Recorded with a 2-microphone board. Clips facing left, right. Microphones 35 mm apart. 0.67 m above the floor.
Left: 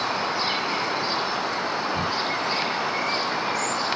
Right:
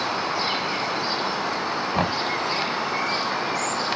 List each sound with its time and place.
1.9 s knocking: 65° right (ahead or behind)